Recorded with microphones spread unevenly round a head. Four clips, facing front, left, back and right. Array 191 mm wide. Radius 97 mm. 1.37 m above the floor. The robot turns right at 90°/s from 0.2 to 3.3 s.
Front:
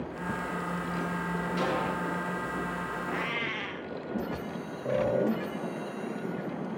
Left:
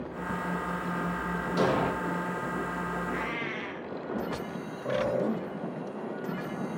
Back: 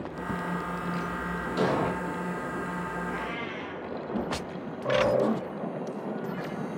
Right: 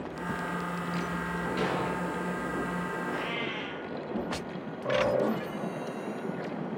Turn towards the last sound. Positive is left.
turn(degrees=0)